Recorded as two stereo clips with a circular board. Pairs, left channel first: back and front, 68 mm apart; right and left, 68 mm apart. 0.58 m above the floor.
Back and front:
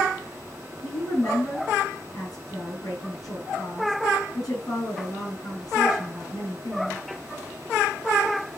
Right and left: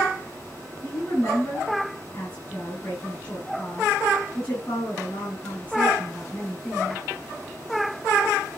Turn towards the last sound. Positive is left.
turn(degrees=-155)